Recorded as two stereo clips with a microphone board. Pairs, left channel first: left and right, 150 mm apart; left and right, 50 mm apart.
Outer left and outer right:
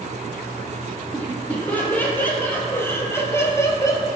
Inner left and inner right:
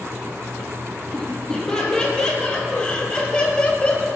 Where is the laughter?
10° left (ahead or behind), 4 m; by 4.1 s 20° left (ahead or behind), 2.5 m.